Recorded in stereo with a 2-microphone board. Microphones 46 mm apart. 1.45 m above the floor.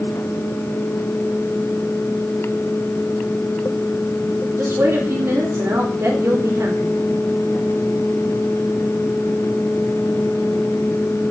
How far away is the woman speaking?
About 4.5 m.